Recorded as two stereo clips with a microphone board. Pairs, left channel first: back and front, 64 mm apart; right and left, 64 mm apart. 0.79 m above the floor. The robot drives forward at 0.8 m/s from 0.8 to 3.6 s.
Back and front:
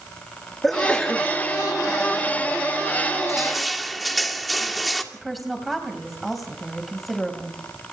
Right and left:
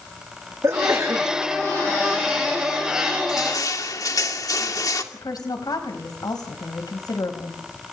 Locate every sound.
0.6 s a sneeze: 95° left, 1.3 m; by 1.3 s 115° left, 1.4 m
3.3 s crushing: 85° right, 2.5 m; by 5.0 s 90° right, 2.5 m
5.1 s a woman speaking: 90° right, 4 m